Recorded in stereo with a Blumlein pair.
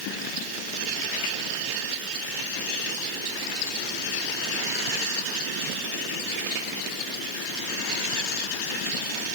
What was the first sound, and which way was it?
Only background noise.